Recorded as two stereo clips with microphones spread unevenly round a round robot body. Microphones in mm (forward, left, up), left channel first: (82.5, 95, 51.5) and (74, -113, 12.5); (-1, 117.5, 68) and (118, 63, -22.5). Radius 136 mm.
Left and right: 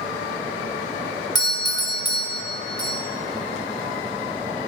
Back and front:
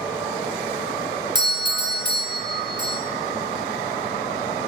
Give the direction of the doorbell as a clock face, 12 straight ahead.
12 o'clock.